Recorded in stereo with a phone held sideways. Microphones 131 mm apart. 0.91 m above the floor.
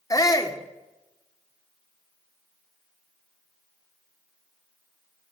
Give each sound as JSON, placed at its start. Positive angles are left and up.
{"t": 0.1, "sound": "a shout", "side_deg": 25, "distance_m": 2.5}